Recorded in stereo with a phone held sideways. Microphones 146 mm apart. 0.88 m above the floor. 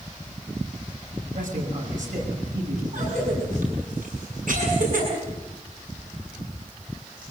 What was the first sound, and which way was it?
A man speaking, 70° right (ahead or behind).